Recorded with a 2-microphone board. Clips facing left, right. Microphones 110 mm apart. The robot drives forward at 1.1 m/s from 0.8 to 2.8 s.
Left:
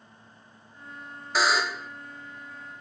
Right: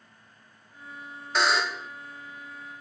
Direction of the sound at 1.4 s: 5° left (ahead or behind).